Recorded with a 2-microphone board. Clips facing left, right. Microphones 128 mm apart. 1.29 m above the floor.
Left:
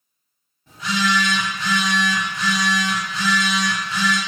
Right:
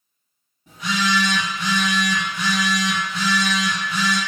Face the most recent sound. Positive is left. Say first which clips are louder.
# left 1 dB
turn(degrees=-15)  # may be behind; listen again after turning